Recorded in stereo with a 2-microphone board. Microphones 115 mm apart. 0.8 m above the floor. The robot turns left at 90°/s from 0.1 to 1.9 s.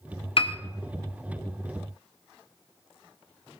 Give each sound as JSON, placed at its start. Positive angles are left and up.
{"t": 0.4, "sound": "a piano", "side_deg": 55, "distance_m": 0.7}